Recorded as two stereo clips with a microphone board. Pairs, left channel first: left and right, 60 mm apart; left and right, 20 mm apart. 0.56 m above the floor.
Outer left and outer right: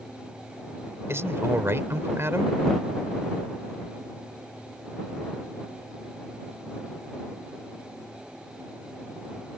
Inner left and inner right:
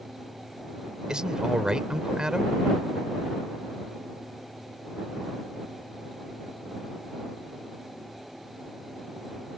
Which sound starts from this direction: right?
A man speaking, at 1.1 s.